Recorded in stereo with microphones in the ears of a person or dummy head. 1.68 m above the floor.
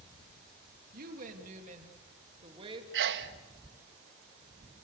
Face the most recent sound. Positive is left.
turn(degrees=-70)  # may be behind; listen again after turning